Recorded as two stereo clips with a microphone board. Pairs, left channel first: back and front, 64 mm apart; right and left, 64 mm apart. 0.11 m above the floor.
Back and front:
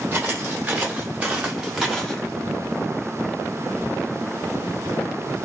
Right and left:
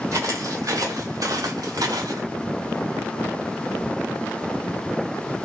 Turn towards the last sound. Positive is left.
turn(degrees=100)